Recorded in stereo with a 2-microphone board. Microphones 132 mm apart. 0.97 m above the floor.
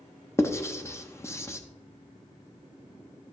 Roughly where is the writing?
Centre.